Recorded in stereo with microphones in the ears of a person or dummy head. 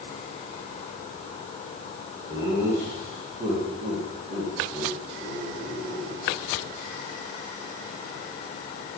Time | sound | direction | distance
2.3 | laughter | 15° right (ahead or behind) | 1.9 m